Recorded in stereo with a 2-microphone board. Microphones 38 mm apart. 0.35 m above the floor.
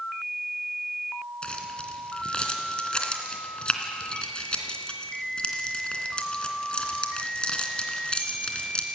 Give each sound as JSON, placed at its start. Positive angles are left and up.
{"t": 1.4, "sound": "keys jangling", "side_deg": 25, "distance_m": 2.5}